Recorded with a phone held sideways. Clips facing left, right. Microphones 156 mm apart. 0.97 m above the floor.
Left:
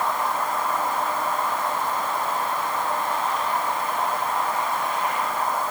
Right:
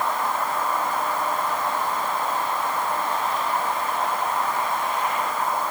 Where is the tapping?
I don't hear tapping.